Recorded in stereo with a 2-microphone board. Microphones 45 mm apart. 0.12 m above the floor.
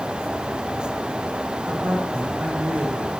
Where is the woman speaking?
45° right (ahead or behind), 8 m; by 3.1 s 35° right (ahead or behind), 8 m.